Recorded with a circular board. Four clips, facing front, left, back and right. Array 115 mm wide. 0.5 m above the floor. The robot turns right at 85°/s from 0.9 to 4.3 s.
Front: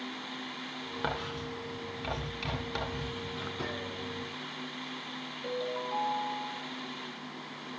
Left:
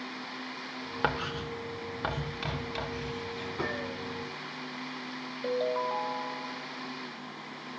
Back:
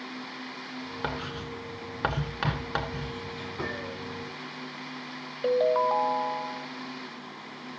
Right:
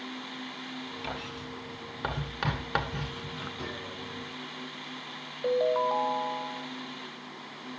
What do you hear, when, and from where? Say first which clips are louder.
1.0 s writing: left 11 dB, even; 90° left, 1.6 m; by 3.5 s 60° right, 1.6 m
3.6 s a gunshot: left 5 dB, back 6 dB; 125° left, 1.7 m; by 4.0 s 160° left, 1.7 m
5.4 s a ringtone: right 4 dB, back 12 dB; 165° right, 0.8 m